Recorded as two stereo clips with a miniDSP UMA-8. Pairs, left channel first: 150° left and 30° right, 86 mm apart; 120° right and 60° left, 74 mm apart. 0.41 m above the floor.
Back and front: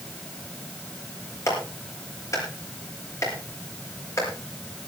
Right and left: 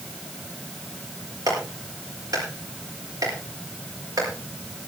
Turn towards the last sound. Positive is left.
turn(degrees=100)